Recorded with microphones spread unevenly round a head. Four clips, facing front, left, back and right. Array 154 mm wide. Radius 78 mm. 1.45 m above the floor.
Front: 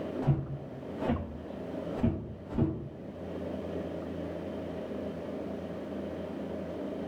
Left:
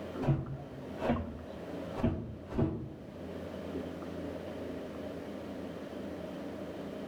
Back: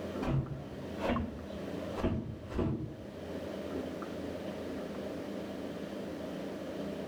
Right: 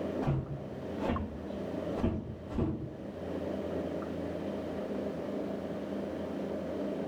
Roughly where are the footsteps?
Ahead right.